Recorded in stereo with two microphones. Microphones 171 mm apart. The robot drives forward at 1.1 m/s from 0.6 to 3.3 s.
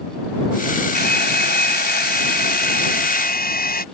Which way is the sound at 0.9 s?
75° left (ahead or behind).